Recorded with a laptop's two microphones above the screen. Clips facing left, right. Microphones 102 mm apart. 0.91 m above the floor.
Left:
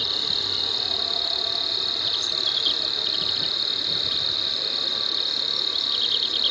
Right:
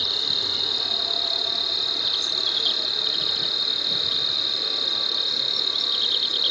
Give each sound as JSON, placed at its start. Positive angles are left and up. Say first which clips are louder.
{"t": 0.0, "sound": "an insect", "louder": "even", "side_deg": -25}